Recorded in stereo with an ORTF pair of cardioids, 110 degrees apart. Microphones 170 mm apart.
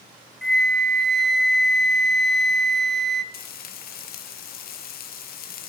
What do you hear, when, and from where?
0.4 s a flute: straight ahead, 0.6 m
3.3 s frying: 60° left, 1.2 m